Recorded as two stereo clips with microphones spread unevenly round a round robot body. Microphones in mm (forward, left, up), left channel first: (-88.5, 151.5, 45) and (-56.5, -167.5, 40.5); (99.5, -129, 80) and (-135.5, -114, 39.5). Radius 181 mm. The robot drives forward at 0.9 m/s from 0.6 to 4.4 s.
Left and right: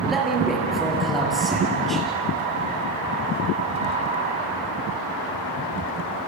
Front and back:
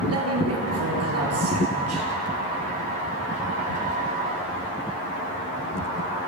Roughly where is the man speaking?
Behind.